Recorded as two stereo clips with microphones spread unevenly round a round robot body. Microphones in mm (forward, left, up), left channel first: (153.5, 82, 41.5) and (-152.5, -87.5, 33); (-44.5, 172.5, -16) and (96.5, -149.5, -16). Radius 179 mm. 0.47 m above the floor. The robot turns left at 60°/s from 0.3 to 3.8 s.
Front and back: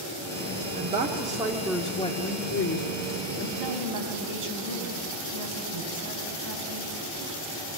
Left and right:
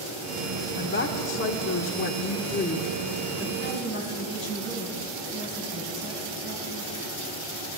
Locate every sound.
0.8 s a woman speaking: 170° left, 1.3 m; by 3.5 s 5° left, 1.3 m
3.6 s a woman speaking: 175° right, 4 m; by 6.9 s 175° left, 4 m